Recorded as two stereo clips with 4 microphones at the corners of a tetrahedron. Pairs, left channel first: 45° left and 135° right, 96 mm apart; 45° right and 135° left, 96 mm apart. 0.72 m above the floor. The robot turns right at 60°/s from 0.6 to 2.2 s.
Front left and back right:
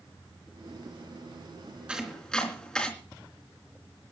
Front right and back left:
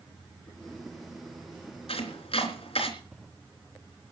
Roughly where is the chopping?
Ahead right.